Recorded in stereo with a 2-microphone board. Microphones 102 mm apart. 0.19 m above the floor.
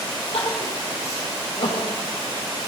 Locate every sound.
0.3 s crying: 80° left, 6.5 m